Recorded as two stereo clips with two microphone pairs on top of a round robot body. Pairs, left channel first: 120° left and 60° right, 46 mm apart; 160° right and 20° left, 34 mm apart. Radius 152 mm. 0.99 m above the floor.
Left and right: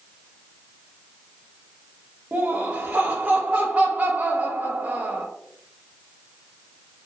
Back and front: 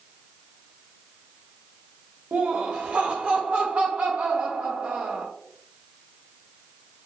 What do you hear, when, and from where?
2.3 s laughter: 15° right, 1.1 m